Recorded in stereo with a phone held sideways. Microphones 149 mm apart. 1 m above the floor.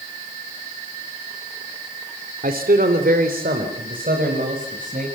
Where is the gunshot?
I don't hear a gunshot.